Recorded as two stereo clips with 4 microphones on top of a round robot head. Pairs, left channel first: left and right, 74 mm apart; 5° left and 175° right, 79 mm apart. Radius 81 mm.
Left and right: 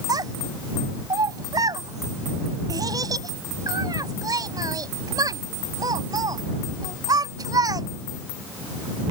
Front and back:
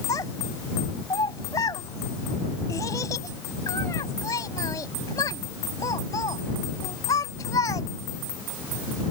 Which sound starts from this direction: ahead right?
A child speaking, at 0.1 s.